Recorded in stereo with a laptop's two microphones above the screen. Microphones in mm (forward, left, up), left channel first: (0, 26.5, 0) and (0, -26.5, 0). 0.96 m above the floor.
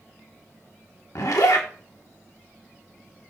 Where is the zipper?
85° left, 1.3 m.